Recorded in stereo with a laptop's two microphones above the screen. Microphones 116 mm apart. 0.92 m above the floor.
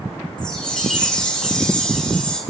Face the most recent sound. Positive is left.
turn(degrees=10)  # may be behind; listen again after turning